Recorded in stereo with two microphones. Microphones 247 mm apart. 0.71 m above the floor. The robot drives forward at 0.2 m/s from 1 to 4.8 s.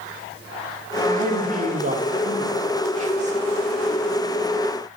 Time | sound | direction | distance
1.1 | a man speaking | 35° right (ahead or behind) | 0.6 m